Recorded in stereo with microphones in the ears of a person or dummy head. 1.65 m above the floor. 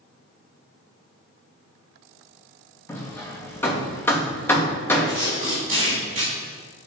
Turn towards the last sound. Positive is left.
turn(degrees=-35)  # may be behind; listen again after turning